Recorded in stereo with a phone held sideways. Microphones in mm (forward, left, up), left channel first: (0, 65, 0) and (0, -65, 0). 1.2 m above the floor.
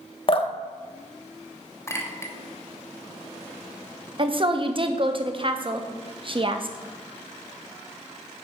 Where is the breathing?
I don't hear breathing.